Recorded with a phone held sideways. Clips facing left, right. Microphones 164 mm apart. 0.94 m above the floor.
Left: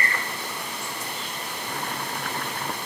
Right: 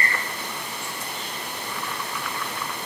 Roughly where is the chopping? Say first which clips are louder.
Left 2 dB; left.